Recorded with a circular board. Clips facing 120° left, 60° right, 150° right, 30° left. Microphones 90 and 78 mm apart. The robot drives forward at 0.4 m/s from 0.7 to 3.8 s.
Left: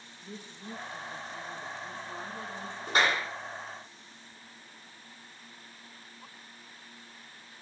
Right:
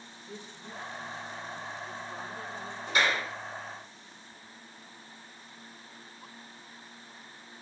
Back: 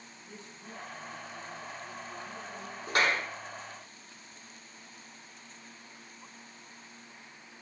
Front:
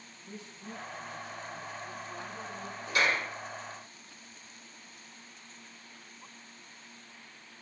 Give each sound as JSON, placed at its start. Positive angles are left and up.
{"t": 0.2, "sound": "a woman speaking", "azimuth_deg": 100, "distance_m": 1.7}
{"t": 2.9, "sound": "a clap", "azimuth_deg": 170, "distance_m": 4.0}